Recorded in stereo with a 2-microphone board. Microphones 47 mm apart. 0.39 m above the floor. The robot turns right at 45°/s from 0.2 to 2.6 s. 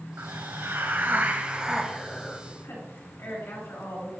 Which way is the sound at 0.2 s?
85° right.